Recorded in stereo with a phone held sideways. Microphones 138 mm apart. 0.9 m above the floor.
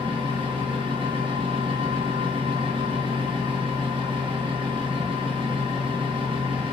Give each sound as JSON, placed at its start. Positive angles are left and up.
{"t": 0.0, "sound": "a fan", "side_deg": -40, "distance_m": 0.8}